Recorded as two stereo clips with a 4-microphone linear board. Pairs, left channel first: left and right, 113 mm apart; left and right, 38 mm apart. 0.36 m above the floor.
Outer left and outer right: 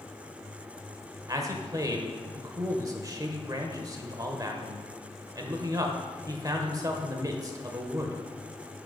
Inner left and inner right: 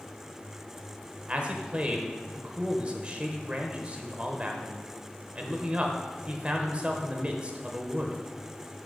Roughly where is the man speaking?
Right.